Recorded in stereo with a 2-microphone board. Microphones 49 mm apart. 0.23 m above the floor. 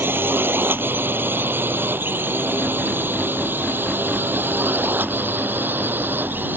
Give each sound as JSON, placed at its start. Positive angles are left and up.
{"t": 0.0, "sound": "a drone", "side_deg": -45}